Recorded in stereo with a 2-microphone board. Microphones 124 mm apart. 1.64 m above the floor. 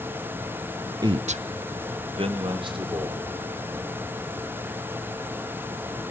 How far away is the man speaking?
About 0.6 m.